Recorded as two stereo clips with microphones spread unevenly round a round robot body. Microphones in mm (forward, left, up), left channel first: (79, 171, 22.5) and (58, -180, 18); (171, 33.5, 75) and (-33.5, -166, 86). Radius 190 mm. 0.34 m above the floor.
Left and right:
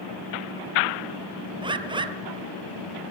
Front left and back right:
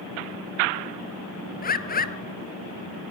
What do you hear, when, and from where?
1.6 s a bird: 15° right, 1.3 m